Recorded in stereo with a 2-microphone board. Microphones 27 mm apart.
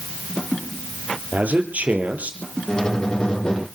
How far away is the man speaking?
About 4.5 m.